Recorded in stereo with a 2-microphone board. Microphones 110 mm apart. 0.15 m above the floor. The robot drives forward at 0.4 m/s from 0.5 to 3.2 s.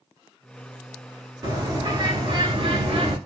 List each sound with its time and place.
1.4 s a bird: 35° right (ahead or behind), 1.0 m; by 3.2 s 55° right (ahead or behind), 0.7 m